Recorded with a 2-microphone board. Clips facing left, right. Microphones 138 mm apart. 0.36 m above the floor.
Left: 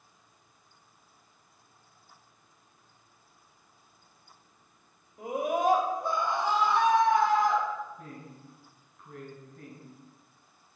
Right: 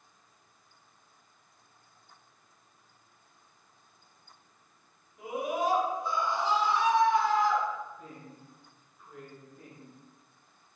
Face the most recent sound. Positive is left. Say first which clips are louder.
# left 2 dB
turn(degrees=70)  # may be behind; listen again after turning